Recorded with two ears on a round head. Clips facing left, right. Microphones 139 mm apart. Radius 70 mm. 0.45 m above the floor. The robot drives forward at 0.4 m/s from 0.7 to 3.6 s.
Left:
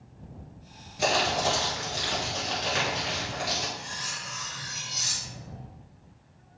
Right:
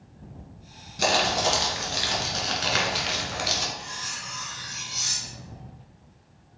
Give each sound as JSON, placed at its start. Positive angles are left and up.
{"t": 1.0, "sound": "crumpling", "side_deg": -45, "distance_m": 1.8}
{"t": 3.8, "sound": "cutlery clinking", "side_deg": 35, "distance_m": 1.0}